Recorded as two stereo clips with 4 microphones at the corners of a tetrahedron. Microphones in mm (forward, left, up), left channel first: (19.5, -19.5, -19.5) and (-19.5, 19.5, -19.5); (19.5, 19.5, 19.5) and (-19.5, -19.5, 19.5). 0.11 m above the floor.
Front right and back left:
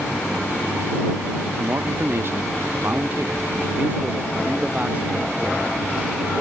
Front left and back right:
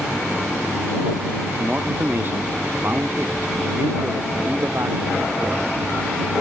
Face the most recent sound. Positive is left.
turn(degrees=-160)